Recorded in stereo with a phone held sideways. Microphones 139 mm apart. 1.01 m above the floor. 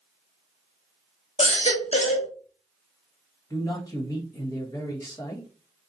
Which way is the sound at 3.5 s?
30° left (ahead or behind).